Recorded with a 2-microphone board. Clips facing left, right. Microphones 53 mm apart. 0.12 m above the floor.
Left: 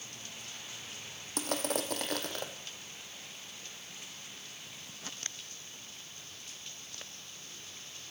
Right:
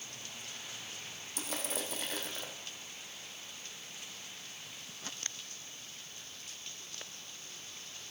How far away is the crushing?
About 2.5 m.